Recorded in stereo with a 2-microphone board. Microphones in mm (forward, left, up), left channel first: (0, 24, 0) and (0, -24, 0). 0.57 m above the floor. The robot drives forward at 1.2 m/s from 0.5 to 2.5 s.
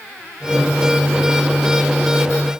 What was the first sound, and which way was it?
Only background noise.